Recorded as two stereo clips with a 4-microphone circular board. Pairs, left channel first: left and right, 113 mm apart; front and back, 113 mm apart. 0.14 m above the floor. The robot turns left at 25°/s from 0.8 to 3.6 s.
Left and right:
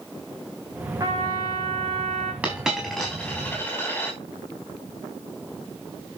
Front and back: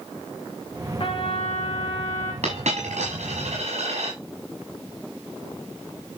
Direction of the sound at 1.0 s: 35° right.